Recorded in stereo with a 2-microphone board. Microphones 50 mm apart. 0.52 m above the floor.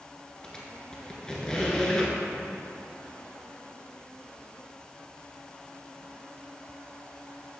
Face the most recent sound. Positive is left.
turn(degrees=15)  # may be behind; listen again after turning